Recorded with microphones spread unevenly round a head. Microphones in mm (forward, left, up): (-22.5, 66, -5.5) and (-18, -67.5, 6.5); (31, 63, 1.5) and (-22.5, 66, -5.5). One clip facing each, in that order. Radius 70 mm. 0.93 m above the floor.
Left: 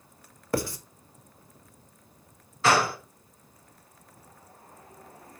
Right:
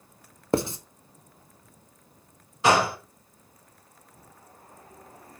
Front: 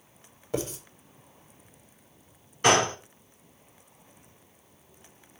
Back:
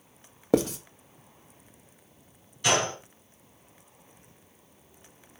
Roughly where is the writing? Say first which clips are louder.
Right 4 dB, back 8 dB; behind right.